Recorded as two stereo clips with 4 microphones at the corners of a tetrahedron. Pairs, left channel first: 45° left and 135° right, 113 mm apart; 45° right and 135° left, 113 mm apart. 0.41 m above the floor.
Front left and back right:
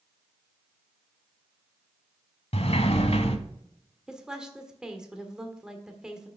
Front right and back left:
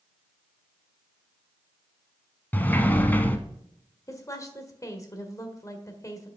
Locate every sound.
2.5 s a sliding door: 30° left, 1.0 m
4.1 s a woman speaking: 55° right, 1.5 m